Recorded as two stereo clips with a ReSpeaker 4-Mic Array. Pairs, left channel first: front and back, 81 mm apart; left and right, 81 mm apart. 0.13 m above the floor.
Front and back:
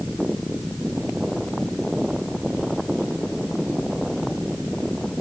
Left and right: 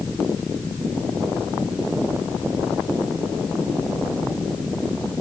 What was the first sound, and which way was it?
Only background noise.